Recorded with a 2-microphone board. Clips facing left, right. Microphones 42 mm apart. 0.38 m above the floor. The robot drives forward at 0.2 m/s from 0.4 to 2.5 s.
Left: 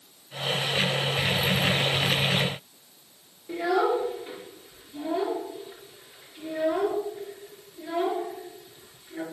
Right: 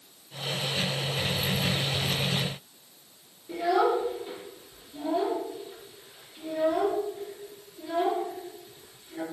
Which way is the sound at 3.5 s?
50° left (ahead or behind).